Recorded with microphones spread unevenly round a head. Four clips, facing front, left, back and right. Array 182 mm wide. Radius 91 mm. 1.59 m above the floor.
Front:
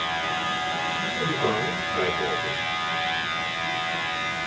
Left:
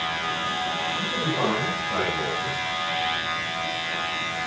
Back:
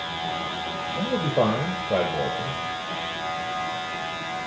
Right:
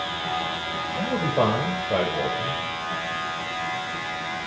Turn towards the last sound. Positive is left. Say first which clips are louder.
# right 7 dB, back 4 dB
turn(degrees=-150)